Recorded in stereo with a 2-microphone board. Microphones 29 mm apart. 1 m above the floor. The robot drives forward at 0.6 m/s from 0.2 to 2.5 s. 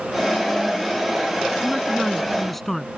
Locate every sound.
1.6 s a man speaking: 10° left (ahead or behind)